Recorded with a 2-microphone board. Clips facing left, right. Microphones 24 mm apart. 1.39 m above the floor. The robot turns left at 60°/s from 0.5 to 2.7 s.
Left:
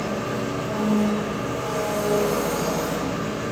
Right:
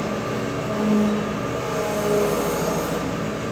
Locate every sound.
0.0 s an engine running: 80° right, 1.8 m; by 3.5 s 150° left, 1.8 m